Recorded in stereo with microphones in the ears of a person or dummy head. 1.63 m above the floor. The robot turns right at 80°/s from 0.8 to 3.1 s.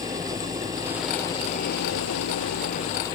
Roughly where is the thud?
No thud in this recording.